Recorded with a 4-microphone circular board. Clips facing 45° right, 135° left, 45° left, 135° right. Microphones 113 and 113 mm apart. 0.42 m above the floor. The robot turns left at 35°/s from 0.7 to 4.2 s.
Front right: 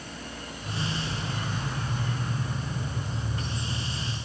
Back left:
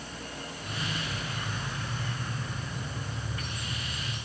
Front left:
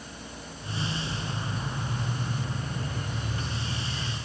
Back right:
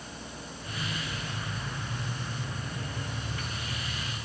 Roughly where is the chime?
I don't hear a chime.